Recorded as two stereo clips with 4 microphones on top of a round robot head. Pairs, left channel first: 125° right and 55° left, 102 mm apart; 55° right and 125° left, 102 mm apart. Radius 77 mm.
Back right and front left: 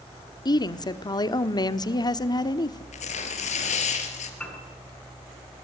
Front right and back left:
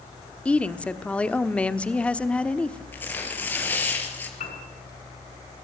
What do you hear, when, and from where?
0.5 s a woman speaking: 125° right, 1.2 m
2.9 s tearing paper: 125° right, 3.5 m
4.4 s a piano: 45° right, 7.5 m